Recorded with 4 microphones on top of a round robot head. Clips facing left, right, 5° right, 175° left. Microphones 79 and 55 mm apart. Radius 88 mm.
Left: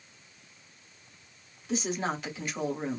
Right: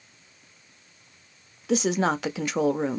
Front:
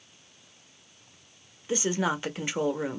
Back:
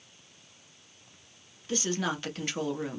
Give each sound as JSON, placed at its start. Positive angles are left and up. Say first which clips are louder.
{"t": 1.7, "sound": "a woman speaking", "louder": "right 8 dB, front 3 dB", "azimuth_deg": -80, "distance_m": 0.7}